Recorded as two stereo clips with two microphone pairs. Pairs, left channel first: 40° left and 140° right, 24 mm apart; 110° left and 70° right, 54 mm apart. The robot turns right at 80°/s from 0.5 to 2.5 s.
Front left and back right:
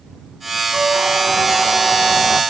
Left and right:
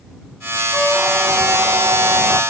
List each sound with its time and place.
0.7 s a squeak: 160° right; by 2.4 s 25° right